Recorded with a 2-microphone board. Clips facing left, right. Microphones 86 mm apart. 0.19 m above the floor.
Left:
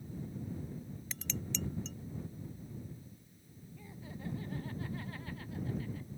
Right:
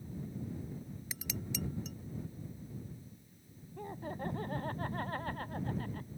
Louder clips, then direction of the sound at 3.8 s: Right 8 dB; 50° right (ahead or behind).